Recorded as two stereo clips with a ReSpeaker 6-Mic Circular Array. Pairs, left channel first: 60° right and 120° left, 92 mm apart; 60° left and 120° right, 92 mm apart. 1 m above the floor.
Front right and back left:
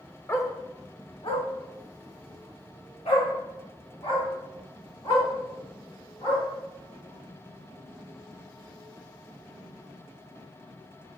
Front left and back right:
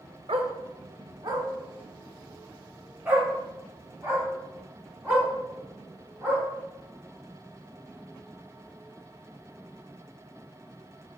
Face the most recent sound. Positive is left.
turn(degrees=-45)